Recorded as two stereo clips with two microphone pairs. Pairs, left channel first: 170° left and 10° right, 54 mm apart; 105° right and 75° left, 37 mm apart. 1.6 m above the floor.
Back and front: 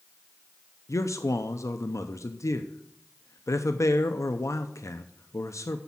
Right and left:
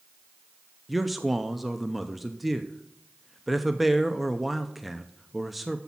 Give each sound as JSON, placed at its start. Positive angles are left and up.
{"t": 0.9, "sound": "a man speaking", "azimuth_deg": 160, "distance_m": 0.6}